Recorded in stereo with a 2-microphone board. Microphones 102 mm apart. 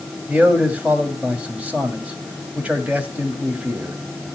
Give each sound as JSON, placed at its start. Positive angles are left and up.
{"t": 0.3, "sound": "a man speaking", "side_deg": -15, "distance_m": 2.0}